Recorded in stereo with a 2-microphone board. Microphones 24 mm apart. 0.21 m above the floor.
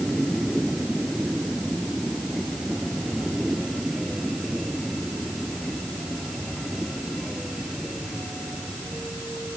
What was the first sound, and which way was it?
Only background noise.